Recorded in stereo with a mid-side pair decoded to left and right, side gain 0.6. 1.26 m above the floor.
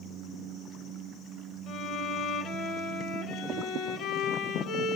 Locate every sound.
1.7 s a violin: 60° left, 0.7 m